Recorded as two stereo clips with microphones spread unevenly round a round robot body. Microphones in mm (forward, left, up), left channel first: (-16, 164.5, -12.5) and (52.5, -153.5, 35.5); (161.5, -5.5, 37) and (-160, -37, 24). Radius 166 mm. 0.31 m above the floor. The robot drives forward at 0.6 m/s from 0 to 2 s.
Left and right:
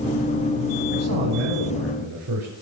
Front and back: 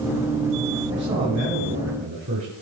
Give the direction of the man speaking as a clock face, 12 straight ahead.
4 o'clock.